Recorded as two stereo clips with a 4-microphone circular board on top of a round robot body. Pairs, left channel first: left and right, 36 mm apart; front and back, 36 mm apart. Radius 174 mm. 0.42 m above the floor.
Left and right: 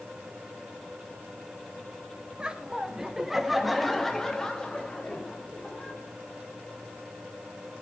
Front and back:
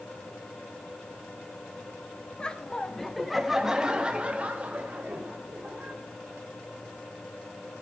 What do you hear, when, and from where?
2.4 s laughter: 45° right, 1.4 m; by 6.0 s 150° left, 2.5 m